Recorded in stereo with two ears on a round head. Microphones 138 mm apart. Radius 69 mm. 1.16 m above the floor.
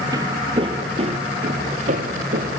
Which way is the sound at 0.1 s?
25° right (ahead or behind).